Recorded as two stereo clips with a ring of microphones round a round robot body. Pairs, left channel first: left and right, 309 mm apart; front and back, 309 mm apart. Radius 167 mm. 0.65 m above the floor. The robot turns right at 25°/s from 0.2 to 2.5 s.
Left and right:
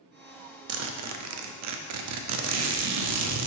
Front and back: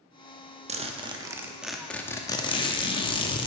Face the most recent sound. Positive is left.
turn(degrees=-70)